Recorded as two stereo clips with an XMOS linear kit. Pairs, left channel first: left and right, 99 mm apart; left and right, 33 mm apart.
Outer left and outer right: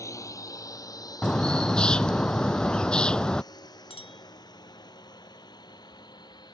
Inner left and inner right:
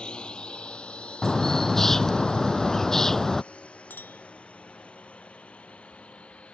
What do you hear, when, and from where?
0.0 s a drone: 30° left (ahead or behind); by 6.5 s 40° left (ahead or behind)
1.2 s a bird: 10° left (ahead or behind)
3.9 s a clink: 60° left (ahead or behind)